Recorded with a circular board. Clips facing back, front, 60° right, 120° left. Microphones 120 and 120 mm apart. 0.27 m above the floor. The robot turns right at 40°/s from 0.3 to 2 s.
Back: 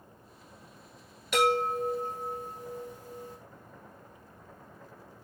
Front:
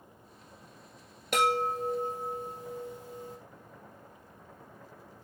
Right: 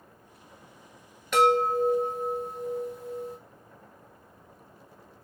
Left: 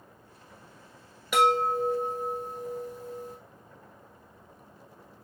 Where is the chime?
35° left, 1.1 m; by 3.4 s 65° left, 1.1 m.